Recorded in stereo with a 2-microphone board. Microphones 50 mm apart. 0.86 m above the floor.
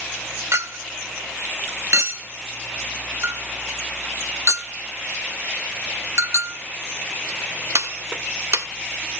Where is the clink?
65° right (ahead or behind), 0.9 m.